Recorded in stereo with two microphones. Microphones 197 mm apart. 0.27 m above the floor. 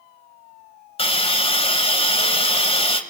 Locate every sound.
1.0 s a hiss: 30° left (ahead or behind), 1.6 m